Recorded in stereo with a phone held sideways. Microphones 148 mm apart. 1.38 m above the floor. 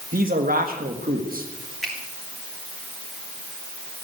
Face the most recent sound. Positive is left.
turn(degrees=0)  # may be behind; listen again after turning